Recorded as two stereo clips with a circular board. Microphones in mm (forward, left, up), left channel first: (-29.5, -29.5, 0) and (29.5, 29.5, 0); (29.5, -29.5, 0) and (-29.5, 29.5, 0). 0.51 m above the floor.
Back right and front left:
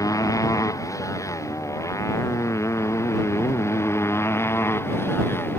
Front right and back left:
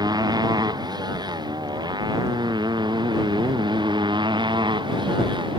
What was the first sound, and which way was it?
A motorcycle, 175° left.